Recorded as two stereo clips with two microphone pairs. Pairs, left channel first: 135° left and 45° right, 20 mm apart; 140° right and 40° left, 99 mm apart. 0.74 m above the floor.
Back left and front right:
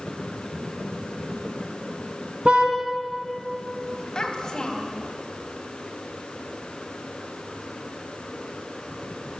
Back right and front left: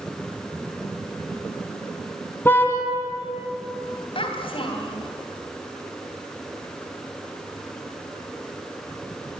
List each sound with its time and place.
2.5 s a car horn: 75° right, 3 m
4.2 s a child speaking: 170° right, 3 m